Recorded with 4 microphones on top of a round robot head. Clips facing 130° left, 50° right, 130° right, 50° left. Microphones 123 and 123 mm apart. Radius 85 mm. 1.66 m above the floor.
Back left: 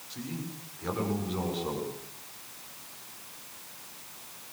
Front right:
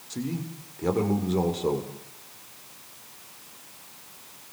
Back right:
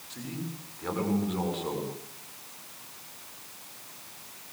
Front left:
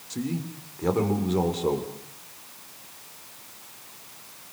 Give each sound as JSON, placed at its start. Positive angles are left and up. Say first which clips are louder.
{"t": 0.1, "sound": "a man speaking", "louder": "front right 6 dB, front left 7 dB", "azimuth_deg": -5, "distance_m": 7.0}